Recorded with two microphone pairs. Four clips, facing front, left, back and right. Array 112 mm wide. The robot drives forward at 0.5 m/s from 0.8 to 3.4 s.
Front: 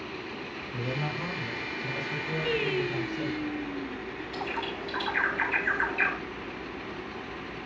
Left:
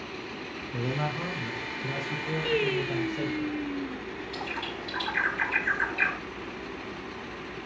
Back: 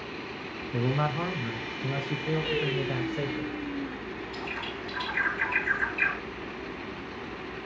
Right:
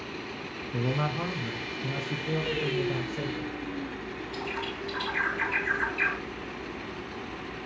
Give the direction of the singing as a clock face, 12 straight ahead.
10 o'clock.